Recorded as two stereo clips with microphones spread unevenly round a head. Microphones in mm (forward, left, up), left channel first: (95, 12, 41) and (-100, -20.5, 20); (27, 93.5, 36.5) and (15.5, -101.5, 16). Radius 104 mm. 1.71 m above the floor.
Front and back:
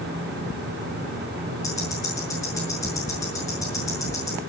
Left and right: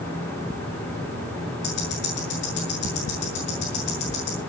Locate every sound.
1.6 s ticking: 85° left, 7.5 m